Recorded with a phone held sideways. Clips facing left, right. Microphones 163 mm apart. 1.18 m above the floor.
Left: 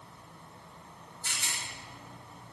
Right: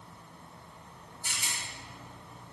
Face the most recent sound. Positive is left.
turn(degrees=-15)  # may be behind; listen again after turning